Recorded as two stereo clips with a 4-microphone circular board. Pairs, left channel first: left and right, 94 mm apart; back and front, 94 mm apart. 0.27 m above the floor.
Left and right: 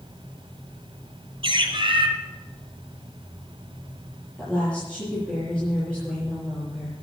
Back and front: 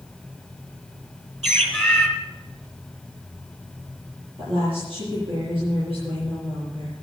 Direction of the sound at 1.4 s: 90° right.